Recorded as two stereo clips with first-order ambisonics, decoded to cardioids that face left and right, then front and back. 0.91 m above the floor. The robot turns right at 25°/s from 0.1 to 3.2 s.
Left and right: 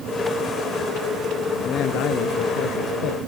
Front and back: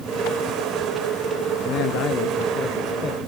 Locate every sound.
1.6 s a man speaking: 35° left; by 3.2 s 75° left